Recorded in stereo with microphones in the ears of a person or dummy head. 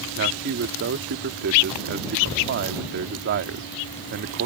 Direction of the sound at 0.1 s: 55° right (ahead or behind).